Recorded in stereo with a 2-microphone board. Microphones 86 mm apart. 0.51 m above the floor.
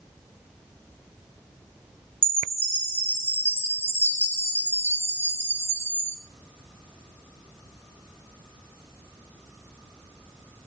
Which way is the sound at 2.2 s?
30° right (ahead or behind).